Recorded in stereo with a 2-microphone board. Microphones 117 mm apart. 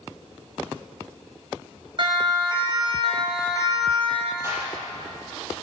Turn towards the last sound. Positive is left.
turn(degrees=-25)  # may be behind; listen again after turning